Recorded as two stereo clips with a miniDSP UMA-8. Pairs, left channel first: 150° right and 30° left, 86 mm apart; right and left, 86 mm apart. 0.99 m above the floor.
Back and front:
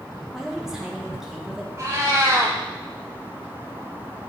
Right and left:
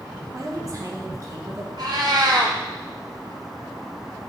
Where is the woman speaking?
115° left, 1.0 m.